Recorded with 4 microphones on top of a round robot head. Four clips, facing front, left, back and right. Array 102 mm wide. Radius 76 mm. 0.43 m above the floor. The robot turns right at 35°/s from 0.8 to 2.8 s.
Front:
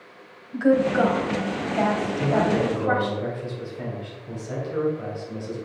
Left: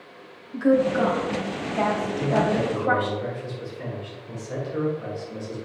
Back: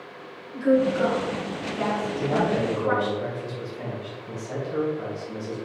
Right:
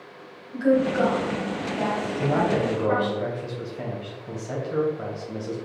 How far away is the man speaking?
About 3 m.